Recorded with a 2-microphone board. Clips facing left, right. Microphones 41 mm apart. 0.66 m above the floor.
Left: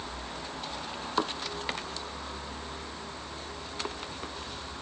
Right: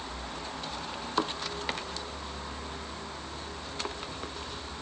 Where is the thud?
No thud in this recording.